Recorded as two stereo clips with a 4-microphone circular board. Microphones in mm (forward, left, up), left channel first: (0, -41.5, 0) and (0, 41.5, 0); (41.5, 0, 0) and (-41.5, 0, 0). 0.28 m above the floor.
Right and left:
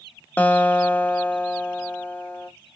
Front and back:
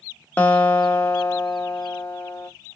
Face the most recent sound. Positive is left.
turn(degrees=-45)